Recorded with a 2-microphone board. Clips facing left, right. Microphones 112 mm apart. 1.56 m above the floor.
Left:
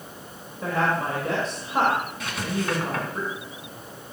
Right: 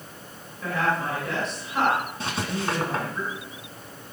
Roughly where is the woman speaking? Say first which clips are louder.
Left 1 dB; left.